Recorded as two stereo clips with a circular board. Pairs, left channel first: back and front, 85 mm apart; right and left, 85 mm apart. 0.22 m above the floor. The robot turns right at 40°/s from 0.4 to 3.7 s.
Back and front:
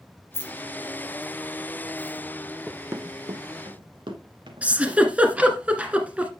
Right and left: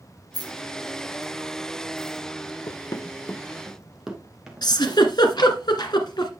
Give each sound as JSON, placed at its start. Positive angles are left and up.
{"t": 0.3, "sound": "keys jangling", "azimuth_deg": 120, "distance_m": 3.0}
{"t": 2.7, "sound": "running footsteps", "azimuth_deg": -85, "distance_m": 0.5}
{"t": 4.6, "sound": "a giggle", "azimuth_deg": -75, "distance_m": 1.7}